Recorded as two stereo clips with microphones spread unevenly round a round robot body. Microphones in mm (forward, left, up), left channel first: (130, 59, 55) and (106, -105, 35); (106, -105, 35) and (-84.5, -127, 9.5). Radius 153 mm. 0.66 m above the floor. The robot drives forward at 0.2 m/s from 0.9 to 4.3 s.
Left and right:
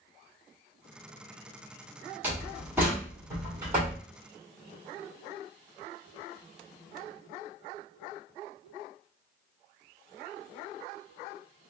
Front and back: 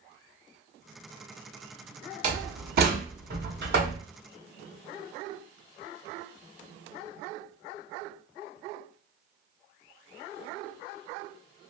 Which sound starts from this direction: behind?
A door slam, at 2.2 s.